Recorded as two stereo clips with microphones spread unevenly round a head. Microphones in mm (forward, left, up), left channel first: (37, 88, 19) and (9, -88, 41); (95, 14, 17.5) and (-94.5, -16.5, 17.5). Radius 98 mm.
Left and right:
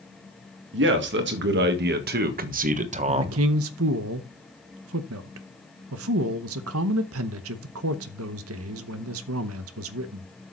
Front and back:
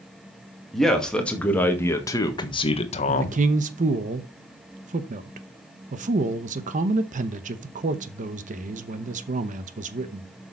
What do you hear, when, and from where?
0.7 s a man speaking: 80° right, 2 m; by 3.4 s 35° right, 1.2 m
3.1 s a man speaking: 115° right, 0.9 m